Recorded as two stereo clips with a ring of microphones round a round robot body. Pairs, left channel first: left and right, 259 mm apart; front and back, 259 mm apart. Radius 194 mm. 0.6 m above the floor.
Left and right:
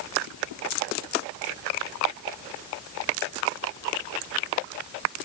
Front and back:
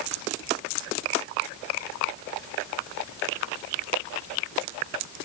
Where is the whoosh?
No whoosh in this recording.